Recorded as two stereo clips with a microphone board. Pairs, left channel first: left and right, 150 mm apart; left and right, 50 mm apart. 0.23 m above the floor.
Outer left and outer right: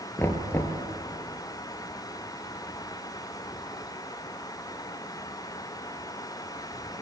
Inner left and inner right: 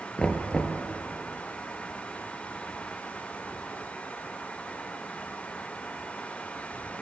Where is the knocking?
15° left (ahead or behind), 2.5 m.